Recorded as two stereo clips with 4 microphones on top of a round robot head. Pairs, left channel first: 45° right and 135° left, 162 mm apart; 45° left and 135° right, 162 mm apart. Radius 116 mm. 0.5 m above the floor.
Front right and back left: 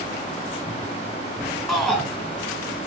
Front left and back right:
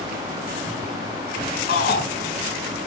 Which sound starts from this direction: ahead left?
A shout, at 1.7 s.